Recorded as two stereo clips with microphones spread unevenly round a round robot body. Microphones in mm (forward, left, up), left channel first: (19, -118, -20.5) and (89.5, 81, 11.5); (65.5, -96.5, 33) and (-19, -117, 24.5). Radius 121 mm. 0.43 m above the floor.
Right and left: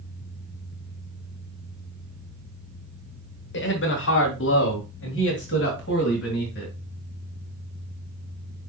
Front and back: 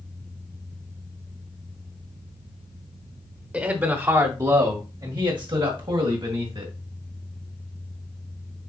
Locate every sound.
3.5 s a man speaking: 100° right, 1.7 m; by 6.7 s 160° right, 3 m